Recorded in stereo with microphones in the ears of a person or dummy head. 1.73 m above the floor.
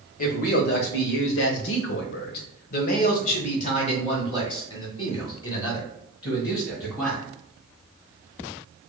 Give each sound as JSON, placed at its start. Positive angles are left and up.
{"t": 0.2, "sound": "a man speaking", "side_deg": 55, "distance_m": 1.2}